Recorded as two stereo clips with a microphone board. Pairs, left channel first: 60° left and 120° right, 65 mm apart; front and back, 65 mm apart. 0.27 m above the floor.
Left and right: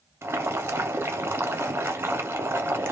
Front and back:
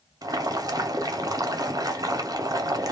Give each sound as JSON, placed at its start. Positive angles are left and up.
{"t": 0.2, "sound": "boiling", "azimuth_deg": -170, "distance_m": 0.7}